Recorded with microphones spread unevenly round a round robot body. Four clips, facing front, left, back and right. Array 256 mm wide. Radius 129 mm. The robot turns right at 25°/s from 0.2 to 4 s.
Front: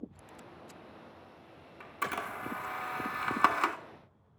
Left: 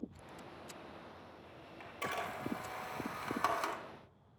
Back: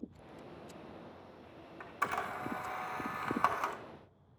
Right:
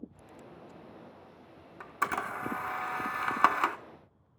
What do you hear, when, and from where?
1.8 s a camera shutter: 85° right, 1.1 m; by 3.8 s 35° right, 1.1 m